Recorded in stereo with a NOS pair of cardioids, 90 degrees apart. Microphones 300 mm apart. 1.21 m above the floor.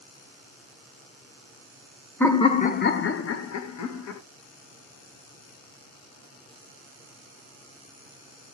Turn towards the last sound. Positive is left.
turn(degrees=70)